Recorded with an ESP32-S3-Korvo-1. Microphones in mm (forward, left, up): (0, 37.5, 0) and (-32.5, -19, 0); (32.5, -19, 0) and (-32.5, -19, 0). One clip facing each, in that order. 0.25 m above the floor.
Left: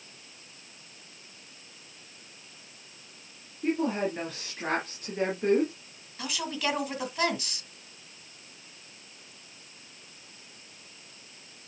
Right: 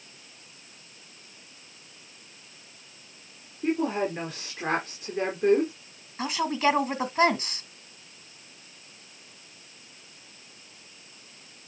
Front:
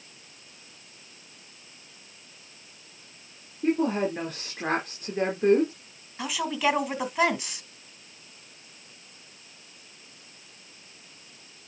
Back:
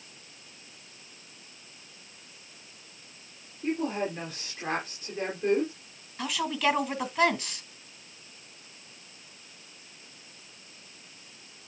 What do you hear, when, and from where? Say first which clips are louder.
3.6 s a woman speaking: right 1 dB, front 5 dB; 40° right, 3 m
6.2 s a woman speaking: right 7 dB, front 1 dB; 80° right, 1.9 m